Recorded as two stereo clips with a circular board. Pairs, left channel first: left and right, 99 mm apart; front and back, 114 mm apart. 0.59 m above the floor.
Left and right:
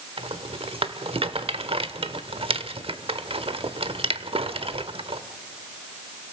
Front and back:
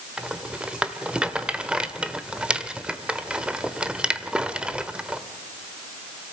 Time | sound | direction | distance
0.2 | a rattle | 100° right | 1.2 m